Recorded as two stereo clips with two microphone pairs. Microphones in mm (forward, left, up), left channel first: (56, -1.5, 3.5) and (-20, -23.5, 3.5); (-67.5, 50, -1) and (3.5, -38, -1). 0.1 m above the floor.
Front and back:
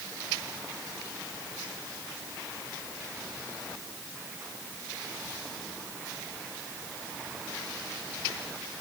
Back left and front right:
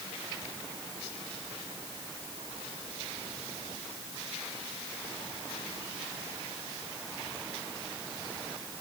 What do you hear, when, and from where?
Only background noise.